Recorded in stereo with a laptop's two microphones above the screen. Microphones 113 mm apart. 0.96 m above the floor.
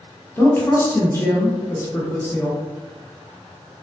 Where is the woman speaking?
20° left (ahead or behind), 0.6 m.